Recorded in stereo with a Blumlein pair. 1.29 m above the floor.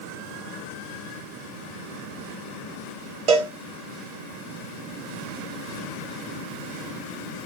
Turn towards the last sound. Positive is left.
turn(degrees=-40)